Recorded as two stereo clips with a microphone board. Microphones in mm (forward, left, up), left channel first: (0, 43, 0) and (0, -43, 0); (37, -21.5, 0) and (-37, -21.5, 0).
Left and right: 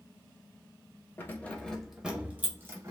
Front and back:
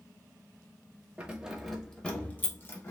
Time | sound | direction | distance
1.2 | keys jangling | 125° left | 0.7 m